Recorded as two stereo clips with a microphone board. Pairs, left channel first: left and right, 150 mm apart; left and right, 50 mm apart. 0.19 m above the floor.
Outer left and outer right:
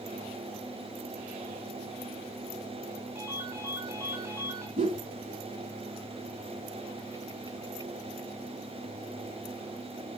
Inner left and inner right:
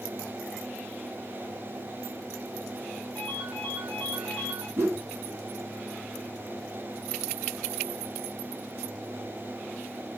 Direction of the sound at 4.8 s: 45° right (ahead or behind).